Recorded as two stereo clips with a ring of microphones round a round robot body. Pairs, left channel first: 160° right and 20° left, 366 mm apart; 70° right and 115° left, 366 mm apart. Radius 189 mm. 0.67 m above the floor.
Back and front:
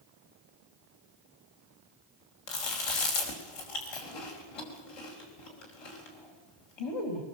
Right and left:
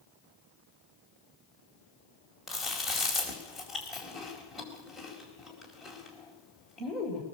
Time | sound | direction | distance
2.5 | chewing | 160° right | 4.5 m